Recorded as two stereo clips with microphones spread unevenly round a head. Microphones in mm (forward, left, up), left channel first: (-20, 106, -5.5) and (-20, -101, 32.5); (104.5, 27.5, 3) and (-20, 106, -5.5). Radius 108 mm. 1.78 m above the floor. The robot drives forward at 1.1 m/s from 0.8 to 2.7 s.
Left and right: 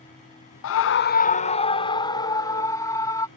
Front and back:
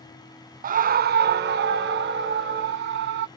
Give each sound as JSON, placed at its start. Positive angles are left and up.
{"t": 0.6, "sound": "a scream", "azimuth_deg": 120}